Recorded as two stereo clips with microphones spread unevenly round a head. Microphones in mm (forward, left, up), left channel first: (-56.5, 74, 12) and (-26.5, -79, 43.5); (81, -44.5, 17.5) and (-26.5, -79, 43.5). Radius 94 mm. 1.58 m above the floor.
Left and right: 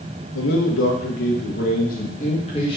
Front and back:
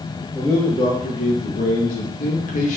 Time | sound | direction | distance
0.3 | a man speaking | 100° left | 1.9 m